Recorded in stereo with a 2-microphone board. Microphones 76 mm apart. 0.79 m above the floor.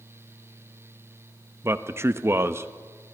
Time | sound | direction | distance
1.6 | a man speaking | 35° right (ahead or behind) | 0.7 m